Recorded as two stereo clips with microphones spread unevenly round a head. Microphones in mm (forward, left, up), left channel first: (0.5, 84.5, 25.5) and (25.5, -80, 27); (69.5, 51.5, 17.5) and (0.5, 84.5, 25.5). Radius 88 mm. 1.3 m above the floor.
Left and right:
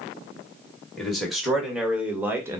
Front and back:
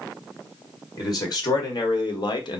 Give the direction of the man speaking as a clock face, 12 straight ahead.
12 o'clock.